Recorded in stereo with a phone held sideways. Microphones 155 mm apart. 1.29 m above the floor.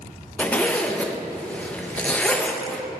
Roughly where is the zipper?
Centre.